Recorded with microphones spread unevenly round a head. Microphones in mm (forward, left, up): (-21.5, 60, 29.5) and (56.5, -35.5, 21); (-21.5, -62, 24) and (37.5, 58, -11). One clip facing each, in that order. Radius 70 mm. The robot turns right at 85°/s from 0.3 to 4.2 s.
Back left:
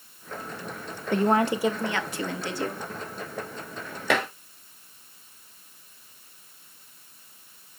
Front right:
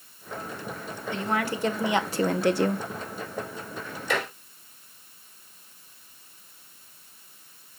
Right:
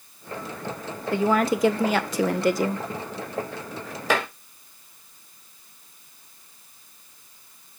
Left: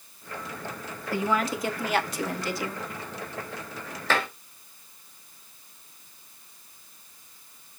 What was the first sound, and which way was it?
A woman speaking, 170° left.